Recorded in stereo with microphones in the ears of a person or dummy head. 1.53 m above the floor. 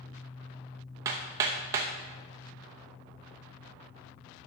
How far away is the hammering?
About 0.8 m.